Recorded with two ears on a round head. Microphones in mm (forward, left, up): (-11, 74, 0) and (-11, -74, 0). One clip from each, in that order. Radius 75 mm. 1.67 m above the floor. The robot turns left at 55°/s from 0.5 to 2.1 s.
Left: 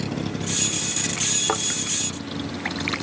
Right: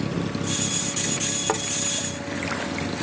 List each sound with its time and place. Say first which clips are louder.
0.0 s a vehicle: right 1 dB; 35° left (ahead or behind); by 3.0 s 50° left (ahead or behind)
1.5 s a thud: right 2 dB; 10° left (ahead or behind); by 1.6 s centre (ahead or behind)